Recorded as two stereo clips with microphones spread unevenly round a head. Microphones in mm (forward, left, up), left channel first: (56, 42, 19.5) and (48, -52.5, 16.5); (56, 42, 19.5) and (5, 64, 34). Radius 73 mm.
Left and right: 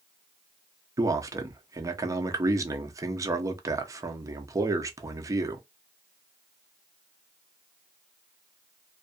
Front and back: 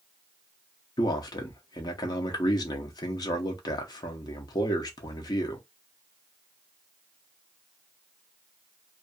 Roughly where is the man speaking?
Ahead right.